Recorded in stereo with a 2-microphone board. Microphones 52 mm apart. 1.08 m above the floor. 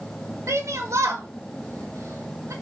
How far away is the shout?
About 2 m.